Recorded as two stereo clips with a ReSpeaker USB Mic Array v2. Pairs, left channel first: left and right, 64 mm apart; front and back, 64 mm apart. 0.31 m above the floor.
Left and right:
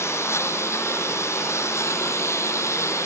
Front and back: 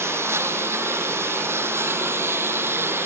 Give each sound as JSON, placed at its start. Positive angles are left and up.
{"t": 0.0, "sound": "a lawn mower", "azimuth_deg": 135}